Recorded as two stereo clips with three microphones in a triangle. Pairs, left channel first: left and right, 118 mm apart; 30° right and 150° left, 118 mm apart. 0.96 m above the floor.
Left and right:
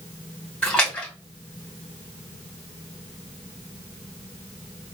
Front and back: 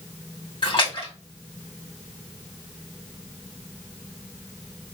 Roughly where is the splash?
Ahead.